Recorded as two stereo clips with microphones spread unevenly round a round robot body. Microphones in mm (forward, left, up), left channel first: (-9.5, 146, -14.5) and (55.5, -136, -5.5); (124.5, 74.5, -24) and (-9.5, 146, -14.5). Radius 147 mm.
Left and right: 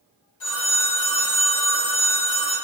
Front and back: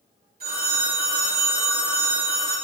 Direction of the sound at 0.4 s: 130° left.